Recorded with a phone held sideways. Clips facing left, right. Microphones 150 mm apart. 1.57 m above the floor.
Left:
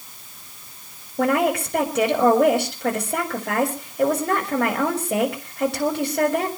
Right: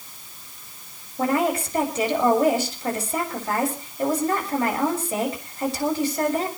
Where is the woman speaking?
70° left (ahead or behind), 6 m.